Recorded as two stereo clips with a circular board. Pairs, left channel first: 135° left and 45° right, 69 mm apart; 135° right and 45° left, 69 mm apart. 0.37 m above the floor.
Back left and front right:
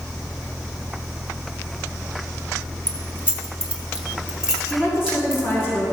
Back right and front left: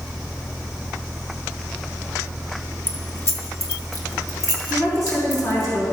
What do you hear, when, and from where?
2.9 s keys jangling: 95° right, 1.1 m; by 5.7 s 125° right, 2 m
4.7 s a woman speaking: 165° right, 3.5 m